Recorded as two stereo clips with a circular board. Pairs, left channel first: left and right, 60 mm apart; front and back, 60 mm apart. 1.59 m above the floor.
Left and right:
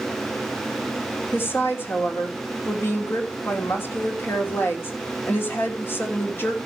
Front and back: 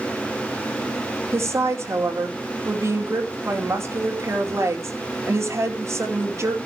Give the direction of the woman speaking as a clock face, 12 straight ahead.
7 o'clock.